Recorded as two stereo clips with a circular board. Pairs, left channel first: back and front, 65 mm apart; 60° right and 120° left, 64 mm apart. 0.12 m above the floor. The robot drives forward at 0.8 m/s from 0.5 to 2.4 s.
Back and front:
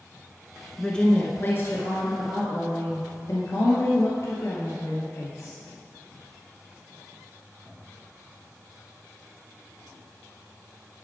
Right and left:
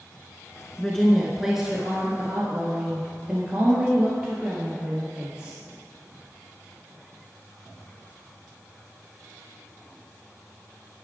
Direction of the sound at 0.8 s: 115° right.